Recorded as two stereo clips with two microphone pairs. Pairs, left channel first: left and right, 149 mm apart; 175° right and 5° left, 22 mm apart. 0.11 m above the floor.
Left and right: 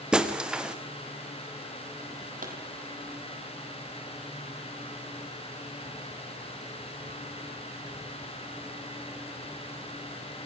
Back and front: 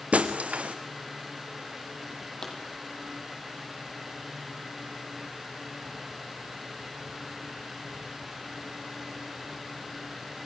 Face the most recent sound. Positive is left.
turn(degrees=-110)